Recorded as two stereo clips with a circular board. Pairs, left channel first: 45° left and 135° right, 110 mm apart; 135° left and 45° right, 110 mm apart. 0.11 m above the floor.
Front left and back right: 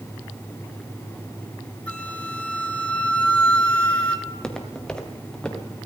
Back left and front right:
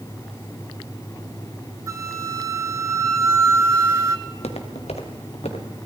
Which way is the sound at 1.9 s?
20° right.